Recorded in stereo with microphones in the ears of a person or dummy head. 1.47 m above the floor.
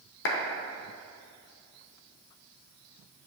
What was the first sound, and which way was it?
A clap, 60° left (ahead or behind).